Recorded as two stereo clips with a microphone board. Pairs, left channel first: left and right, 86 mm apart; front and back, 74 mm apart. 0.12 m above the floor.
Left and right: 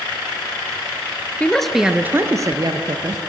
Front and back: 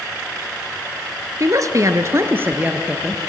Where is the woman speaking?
160° left, 1.8 m; by 3.2 s 100° right, 2.5 m.